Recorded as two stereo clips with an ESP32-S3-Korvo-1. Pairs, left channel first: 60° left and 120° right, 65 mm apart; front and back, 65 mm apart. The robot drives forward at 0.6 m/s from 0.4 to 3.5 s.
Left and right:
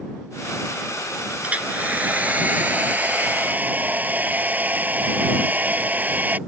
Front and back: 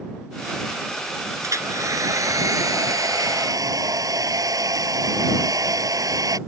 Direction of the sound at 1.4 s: Straight behind.